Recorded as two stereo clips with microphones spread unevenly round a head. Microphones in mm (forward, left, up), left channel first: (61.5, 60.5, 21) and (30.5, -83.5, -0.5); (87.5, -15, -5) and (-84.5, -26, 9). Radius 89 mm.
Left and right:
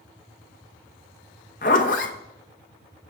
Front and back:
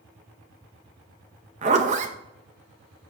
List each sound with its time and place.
1.6 s a zipper: 130° left, 0.7 m